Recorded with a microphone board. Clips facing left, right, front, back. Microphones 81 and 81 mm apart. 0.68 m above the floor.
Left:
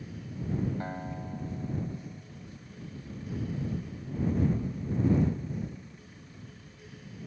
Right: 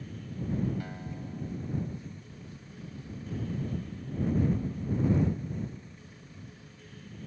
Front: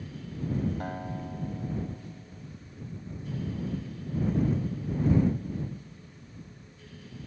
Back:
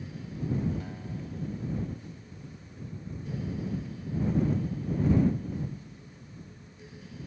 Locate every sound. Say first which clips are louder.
0.8 s a guitar: left 3 dB, front 4 dB; 35° left